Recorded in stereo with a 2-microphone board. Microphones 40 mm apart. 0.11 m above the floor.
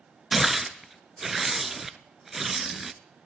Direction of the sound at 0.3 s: 5° right (ahead or behind).